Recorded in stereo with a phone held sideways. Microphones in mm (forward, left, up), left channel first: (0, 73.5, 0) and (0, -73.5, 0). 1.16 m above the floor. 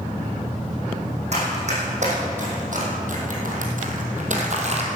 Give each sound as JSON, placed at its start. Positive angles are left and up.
{"t": 1.3, "sound": "running footsteps", "side_deg": -50, "distance_m": 4.0}